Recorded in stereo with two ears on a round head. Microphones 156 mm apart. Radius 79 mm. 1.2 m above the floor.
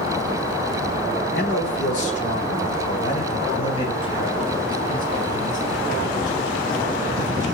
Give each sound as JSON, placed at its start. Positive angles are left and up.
{"t": 1.4, "sound": "a man speaking", "side_deg": 50, "distance_m": 3.0}